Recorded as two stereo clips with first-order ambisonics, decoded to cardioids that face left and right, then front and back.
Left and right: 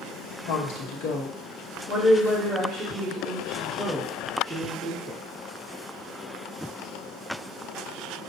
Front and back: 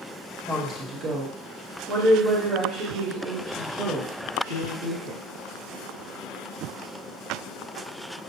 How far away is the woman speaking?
About 0.8 m.